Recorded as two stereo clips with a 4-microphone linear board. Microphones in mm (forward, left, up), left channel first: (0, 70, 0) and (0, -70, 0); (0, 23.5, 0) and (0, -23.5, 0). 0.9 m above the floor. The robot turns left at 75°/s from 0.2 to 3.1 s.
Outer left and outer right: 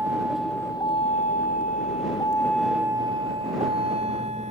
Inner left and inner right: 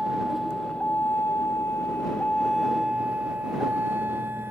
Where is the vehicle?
15° right (ahead or behind); by 4.5 s 60° right (ahead or behind).